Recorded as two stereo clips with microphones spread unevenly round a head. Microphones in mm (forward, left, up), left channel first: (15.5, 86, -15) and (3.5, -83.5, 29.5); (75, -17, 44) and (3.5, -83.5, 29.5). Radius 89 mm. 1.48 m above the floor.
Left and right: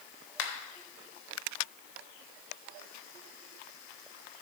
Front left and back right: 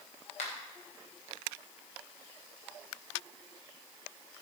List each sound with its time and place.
0.4 s a finger snap: 80° left, 1.6 m